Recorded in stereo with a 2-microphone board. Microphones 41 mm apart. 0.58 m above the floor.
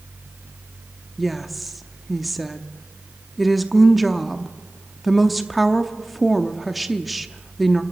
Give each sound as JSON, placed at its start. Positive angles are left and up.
{"t": 1.2, "sound": "a woman speaking", "side_deg": 0, "distance_m": 0.7}